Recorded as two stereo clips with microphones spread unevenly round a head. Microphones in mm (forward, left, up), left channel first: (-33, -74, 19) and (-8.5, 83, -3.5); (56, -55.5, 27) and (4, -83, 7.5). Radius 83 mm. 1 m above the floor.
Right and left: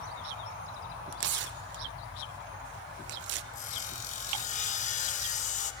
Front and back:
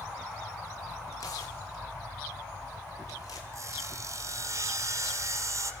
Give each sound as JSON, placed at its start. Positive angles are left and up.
{"t": 1.1, "sound": "tearing paper", "azimuth_deg": 95, "distance_m": 0.6}
{"t": 3.5, "sound": "sawing", "azimuth_deg": -115, "distance_m": 0.9}